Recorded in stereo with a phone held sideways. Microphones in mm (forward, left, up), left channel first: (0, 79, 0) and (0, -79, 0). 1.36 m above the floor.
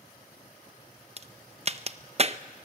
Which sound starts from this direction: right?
A crack, at 1.2 s.